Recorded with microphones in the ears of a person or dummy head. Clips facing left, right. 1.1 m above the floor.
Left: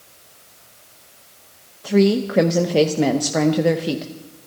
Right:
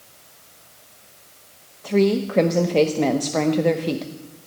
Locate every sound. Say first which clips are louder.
1.8 s a woman speaking: left 2 dB; centre (ahead or behind), 0.7 m